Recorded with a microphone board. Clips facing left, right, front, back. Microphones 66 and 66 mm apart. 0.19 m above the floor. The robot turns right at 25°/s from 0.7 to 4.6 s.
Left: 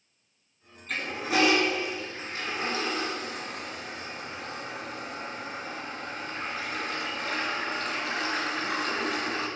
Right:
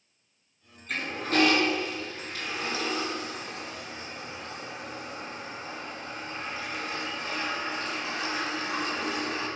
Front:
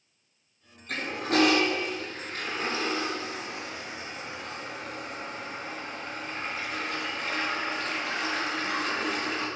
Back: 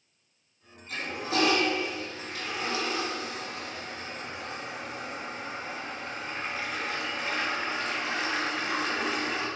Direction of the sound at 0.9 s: Straight ahead.